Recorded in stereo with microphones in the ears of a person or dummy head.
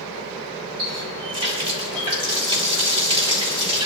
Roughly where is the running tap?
Right.